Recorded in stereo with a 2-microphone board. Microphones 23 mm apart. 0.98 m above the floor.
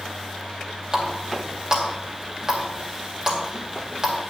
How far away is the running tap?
About 2.5 m.